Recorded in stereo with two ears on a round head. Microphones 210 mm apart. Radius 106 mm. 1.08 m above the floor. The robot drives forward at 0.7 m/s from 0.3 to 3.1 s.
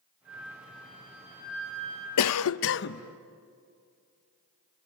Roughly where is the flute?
Right.